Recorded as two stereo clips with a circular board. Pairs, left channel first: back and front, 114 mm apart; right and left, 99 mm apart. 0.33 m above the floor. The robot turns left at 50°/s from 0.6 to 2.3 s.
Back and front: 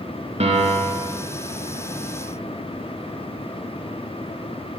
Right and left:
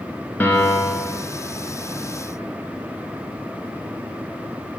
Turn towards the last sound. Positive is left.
turn(degrees=-100)